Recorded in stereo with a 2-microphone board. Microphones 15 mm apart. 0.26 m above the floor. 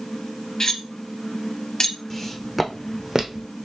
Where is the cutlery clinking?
40° left (ahead or behind), 0.8 m.